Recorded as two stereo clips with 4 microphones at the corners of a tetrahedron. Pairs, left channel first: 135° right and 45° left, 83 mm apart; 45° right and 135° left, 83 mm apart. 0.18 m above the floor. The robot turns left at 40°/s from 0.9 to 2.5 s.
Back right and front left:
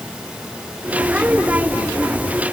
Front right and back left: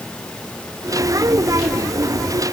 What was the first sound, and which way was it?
Only background noise.